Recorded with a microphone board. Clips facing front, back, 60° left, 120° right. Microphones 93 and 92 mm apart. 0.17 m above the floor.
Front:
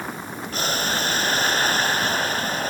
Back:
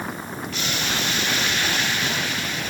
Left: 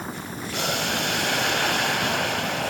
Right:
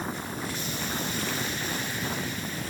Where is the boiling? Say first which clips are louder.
Front 4 dB, left 6 dB; 50° left.